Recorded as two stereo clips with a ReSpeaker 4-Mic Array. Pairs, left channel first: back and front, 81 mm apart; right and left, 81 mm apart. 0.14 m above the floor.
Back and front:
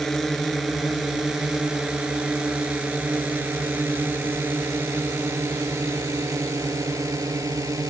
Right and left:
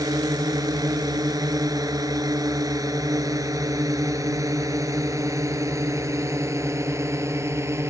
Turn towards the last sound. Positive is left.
turn(degrees=40)